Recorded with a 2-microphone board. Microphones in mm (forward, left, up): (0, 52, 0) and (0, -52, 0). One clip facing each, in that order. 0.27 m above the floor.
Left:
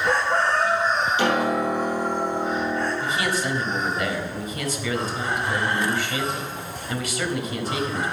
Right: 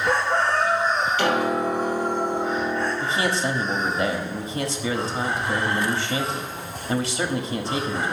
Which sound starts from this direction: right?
A man speaking, at 3.0 s.